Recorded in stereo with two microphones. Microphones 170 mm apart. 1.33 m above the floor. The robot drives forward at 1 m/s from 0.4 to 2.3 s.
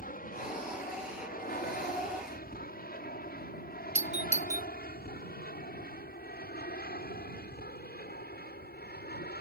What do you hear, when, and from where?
0.0 s an aircraft: 60° left (ahead or behind); by 9.4 s 75° left (ahead or behind)
4.0 s a doorbell: 45° right (ahead or behind)